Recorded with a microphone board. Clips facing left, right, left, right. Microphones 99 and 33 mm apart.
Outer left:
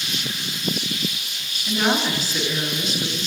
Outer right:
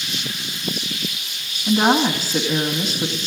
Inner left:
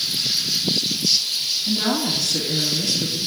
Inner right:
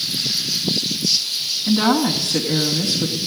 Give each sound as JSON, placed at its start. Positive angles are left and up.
{"t": 1.7, "sound": "a woman speaking", "side_deg": -50, "distance_m": 2.0}